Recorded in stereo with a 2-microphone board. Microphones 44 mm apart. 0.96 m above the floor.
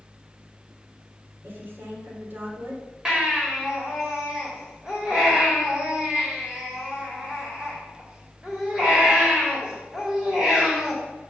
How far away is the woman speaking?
About 2.5 m.